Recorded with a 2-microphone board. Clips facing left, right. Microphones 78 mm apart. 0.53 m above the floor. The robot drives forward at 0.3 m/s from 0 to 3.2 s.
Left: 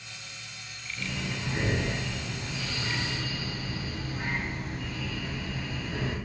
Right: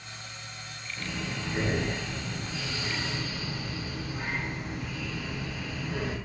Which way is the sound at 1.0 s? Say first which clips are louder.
Even; 20° right (ahead or behind).